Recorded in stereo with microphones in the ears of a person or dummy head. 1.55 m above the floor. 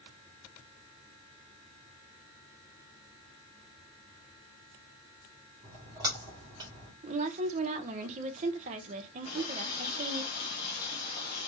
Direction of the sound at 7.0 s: 40° right (ahead or behind).